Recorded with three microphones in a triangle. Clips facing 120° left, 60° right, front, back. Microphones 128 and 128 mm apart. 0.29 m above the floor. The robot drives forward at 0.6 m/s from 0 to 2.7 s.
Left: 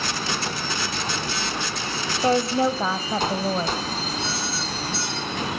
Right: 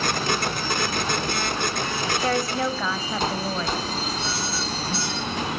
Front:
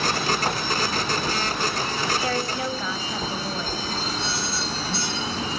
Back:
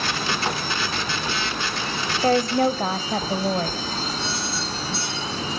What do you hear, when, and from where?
2.2 s a woman speaking: 175° left, 1.2 m